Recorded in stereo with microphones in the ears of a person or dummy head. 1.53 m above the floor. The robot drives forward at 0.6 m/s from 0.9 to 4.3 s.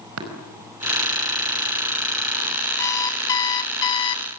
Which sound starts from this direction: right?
Tapping, at 0.2 s.